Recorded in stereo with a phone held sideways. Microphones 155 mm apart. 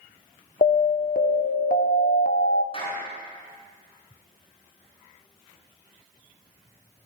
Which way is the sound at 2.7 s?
40° left (ahead or behind).